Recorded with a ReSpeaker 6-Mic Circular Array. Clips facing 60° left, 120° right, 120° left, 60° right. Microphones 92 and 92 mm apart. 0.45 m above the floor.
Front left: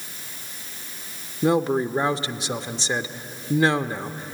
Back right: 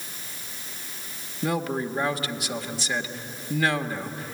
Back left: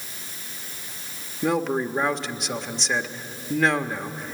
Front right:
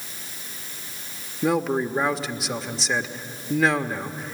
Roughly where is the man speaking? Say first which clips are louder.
Front left 6 dB, front right 1 dB; ahead left.